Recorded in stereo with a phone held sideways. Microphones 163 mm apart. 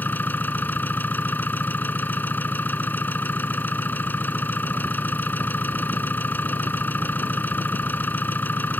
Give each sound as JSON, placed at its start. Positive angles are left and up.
{"t": 0.0, "sound": "an engine running", "side_deg": 10}